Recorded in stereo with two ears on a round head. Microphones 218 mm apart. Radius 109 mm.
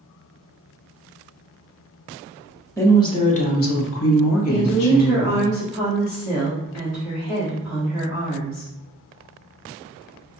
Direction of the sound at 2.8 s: 10° left (ahead or behind).